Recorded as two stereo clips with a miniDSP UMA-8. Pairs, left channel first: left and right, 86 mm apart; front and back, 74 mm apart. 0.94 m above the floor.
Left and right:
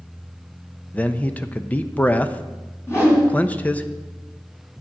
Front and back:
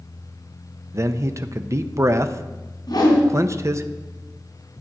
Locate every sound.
0.9 s a man speaking: 155° left, 0.6 m
2.9 s a whoosh: 30° left, 3.5 m